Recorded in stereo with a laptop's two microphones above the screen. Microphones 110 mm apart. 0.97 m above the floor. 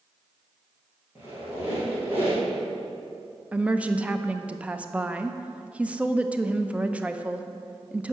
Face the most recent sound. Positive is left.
turn(degrees=-10)  # may be behind; listen again after turning